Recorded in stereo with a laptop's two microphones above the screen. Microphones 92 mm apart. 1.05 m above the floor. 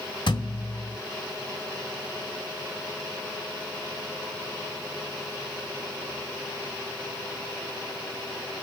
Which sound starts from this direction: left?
A thud, at 0.3 s.